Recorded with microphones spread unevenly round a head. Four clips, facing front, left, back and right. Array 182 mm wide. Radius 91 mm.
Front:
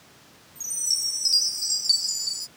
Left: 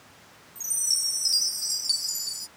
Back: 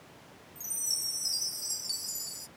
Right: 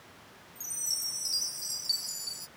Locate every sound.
0.6 s a chime: 35° left